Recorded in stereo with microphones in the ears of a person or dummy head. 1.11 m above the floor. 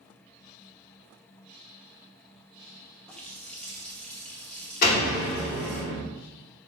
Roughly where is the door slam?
Left.